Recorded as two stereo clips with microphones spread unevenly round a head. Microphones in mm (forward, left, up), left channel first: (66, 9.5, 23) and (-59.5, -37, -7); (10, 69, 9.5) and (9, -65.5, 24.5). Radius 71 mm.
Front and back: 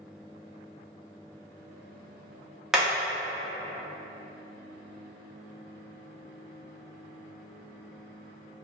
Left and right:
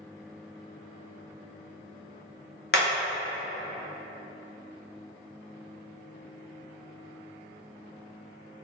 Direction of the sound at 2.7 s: 110° left.